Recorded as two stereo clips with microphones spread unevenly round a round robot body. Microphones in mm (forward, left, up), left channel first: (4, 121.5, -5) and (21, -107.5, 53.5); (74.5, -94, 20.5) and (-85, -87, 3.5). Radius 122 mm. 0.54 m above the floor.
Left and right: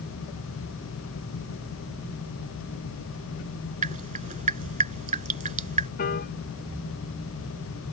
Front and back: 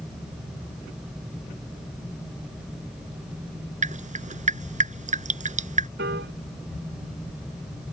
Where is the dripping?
145° right.